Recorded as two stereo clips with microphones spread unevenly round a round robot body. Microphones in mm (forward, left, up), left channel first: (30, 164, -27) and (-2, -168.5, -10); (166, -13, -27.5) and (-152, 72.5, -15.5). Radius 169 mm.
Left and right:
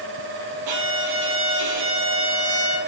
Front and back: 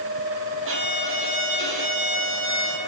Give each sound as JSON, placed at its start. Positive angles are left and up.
{"t": 0.7, "sound": "a violin", "azimuth_deg": -140, "distance_m": 5.0}